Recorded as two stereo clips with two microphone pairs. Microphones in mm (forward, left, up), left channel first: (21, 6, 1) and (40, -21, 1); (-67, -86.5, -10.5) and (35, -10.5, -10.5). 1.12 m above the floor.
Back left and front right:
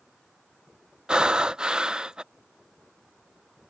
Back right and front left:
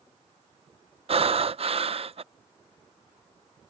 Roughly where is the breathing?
Ahead.